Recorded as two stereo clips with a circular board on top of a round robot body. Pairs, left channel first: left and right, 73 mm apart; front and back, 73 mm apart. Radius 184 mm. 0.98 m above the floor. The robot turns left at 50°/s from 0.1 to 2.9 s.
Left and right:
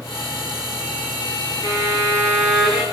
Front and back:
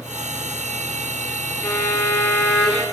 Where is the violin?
55° left, 6.5 m; by 2.8 s 10° right, 6.5 m.